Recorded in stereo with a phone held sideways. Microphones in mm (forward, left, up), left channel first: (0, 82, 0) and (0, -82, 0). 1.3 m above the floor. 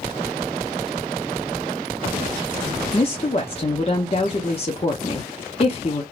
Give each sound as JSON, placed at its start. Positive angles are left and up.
{"t": 2.9, "sound": "a woman speaking", "side_deg": 40, "distance_m": 0.6}